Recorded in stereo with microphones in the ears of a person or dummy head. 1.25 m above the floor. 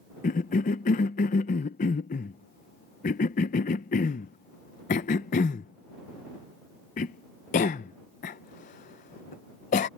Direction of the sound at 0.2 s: 40° left (ahead or behind).